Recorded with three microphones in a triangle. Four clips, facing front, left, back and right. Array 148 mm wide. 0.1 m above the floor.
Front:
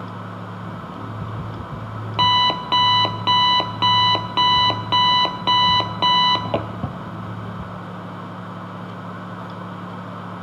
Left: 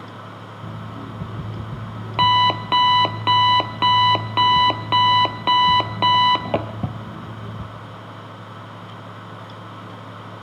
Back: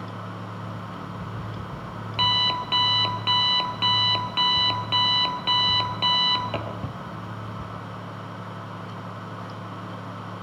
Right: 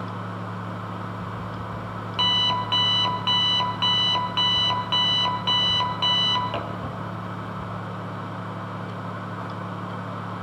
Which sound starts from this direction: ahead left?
An alarm clock, at 0.6 s.